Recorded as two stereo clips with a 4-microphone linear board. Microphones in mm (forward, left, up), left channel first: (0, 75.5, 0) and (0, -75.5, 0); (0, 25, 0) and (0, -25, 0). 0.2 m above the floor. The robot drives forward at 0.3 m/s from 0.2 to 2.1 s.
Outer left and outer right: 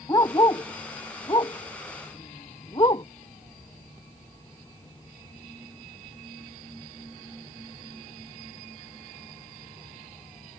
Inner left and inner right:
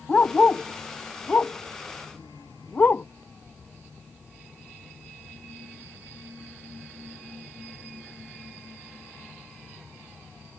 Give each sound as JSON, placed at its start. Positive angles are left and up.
{"t": 0.1, "sound": "a dog barking", "side_deg": 25}